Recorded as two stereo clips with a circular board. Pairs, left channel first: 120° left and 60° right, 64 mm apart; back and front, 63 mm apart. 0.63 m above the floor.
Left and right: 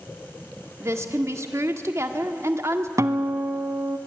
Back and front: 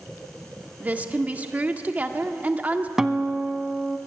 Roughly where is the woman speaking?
Ahead right.